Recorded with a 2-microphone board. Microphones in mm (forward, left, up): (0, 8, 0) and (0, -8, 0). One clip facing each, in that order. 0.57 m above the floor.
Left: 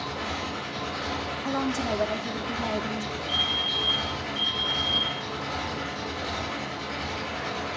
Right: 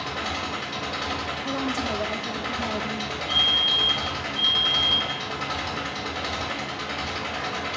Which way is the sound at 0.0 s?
40° right (ahead or behind).